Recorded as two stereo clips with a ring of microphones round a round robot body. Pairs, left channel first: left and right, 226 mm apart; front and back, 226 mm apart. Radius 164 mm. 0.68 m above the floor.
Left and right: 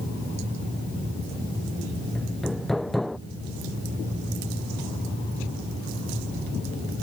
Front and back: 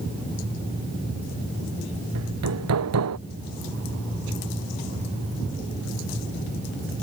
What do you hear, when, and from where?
2.1 s hammering: straight behind